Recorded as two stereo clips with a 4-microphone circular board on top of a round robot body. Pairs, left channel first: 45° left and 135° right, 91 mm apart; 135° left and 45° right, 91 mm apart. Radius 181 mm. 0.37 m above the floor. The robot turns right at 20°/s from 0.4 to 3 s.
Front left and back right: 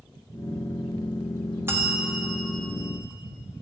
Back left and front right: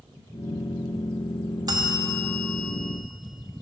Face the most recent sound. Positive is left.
turn(degrees=-50)